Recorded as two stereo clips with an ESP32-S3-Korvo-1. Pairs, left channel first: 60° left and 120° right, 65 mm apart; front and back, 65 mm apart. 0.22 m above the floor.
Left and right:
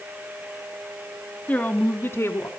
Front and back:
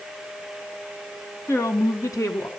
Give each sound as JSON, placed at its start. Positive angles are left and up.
{"t": 1.5, "sound": "a woman speaking", "azimuth_deg": 0, "distance_m": 1.8}